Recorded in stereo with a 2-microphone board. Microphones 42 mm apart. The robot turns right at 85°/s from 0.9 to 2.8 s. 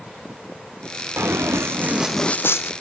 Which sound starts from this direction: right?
Running footsteps, at 1.2 s.